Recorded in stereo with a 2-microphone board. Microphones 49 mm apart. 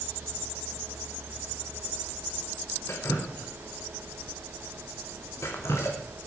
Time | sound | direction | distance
2.9 | dripping | 65° left (ahead or behind) | 3 m